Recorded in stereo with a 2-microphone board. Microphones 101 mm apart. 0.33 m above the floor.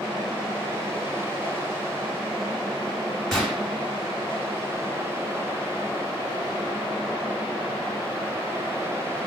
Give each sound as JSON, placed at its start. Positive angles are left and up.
{"t": 3.3, "sound": "a gunshot", "side_deg": 5, "distance_m": 1.1}